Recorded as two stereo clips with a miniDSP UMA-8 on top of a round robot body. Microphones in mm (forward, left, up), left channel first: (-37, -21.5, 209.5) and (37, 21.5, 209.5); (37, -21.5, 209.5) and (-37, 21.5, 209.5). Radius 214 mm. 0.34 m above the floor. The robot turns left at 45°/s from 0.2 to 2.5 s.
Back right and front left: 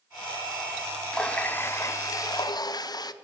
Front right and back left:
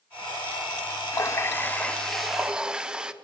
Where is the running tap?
70° right, 0.7 m; by 3.1 s 130° right, 0.7 m.